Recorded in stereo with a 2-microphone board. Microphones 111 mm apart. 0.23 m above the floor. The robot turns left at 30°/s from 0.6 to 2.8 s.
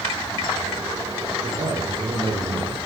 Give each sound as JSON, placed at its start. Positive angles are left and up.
{"t": 1.4, "sound": "a man speaking", "azimuth_deg": -110, "distance_m": 9.5}